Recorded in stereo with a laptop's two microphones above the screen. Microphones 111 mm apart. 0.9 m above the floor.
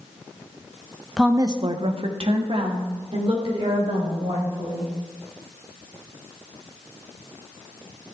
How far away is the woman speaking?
About 0.5 m.